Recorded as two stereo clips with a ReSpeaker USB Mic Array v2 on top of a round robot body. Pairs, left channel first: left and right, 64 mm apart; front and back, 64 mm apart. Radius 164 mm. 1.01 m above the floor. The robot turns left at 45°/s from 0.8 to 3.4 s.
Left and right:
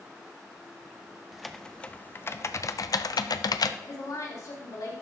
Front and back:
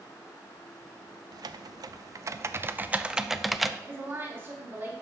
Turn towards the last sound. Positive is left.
turn(degrees=125)